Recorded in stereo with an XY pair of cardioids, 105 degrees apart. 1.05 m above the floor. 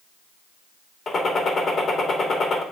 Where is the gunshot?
45° left, 2 m.